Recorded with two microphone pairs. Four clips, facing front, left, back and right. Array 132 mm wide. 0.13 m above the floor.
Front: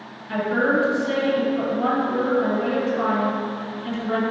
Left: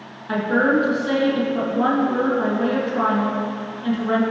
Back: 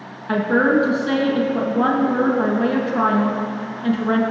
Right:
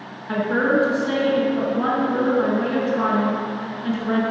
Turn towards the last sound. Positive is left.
turn(degrees=175)